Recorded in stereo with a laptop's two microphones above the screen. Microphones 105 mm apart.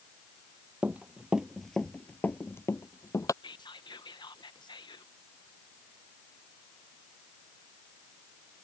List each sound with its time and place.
0.8 s running footsteps: 15° right (ahead or behind); by 3.3 s 30° left (ahead or behind)
3.4 s whispering: 45° left (ahead or behind)